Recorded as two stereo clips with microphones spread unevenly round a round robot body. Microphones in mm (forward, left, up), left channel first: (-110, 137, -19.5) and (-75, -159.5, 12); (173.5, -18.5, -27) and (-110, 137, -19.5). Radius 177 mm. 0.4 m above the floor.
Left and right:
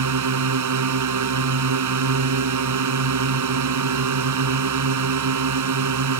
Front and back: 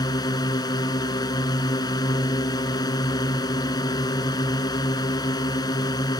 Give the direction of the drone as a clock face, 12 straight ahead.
4 o'clock.